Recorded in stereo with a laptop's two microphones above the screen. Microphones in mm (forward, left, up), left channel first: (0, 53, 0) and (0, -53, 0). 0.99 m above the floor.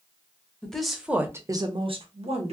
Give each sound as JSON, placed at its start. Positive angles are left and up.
{"t": 0.6, "sound": "a woman speaking", "side_deg": 10, "distance_m": 0.9}